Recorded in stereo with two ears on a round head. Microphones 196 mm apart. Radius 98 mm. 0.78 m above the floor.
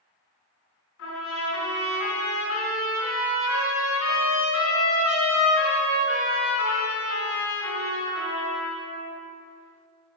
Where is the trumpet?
70° left (ahead or behind), 3.5 m.